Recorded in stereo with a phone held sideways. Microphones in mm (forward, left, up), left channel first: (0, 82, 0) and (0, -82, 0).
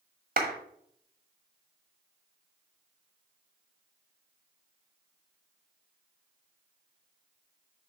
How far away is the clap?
About 1.2 m.